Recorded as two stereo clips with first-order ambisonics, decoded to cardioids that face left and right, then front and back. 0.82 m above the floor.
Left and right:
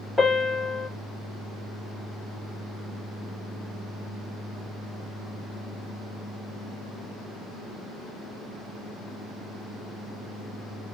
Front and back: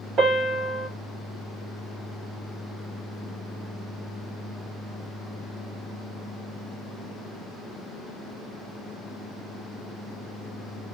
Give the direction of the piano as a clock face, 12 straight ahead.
6 o'clock.